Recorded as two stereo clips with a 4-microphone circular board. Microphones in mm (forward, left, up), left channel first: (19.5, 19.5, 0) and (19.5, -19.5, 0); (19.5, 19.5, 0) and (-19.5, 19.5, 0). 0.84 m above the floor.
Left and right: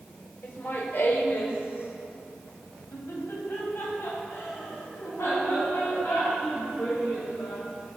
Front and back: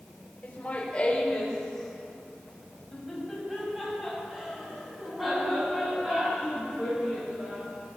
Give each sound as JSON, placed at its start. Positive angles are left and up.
{"t": 0.4, "sound": "laughter", "azimuth_deg": 50, "distance_m": 2.5}